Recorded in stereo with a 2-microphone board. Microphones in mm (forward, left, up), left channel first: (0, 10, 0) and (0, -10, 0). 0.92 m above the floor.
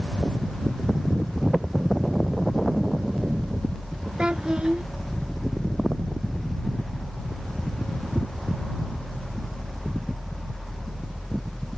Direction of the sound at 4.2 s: 55° right (ahead or behind).